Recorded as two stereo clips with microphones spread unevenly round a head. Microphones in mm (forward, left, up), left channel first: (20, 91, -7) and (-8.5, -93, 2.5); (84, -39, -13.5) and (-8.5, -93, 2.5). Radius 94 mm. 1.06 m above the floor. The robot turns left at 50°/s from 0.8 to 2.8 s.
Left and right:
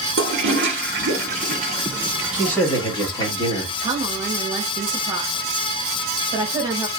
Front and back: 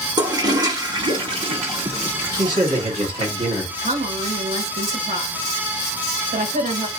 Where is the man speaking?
170° left, 1.7 m; by 3.7 s 150° left, 1.7 m.